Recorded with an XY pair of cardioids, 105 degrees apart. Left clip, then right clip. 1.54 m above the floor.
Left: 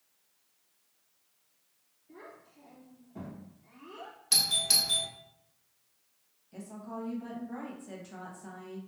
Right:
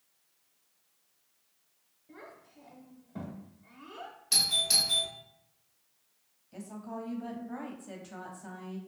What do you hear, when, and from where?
2.1 s a child speaking: 55° right, 0.9 m
4.3 s a doorbell: 25° left, 0.9 m
6.5 s a woman speaking: 20° right, 0.8 m